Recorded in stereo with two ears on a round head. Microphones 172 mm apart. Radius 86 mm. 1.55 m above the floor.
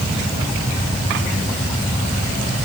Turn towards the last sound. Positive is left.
No sound to turn to.